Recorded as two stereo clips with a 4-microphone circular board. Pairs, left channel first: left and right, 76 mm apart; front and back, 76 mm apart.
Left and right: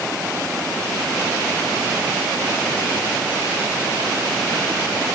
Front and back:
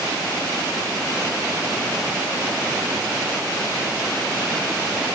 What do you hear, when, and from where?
Only background noise.